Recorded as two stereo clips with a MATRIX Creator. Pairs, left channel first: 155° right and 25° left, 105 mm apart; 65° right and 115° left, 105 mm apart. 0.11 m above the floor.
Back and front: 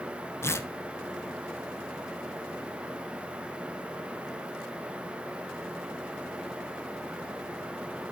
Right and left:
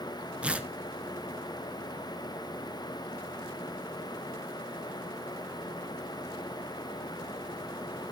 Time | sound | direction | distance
0.4 | tearing paper | straight behind | 0.7 m